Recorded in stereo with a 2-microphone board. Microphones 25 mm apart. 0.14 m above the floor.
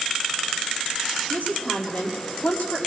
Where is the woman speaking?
65° left (ahead or behind), 5 m.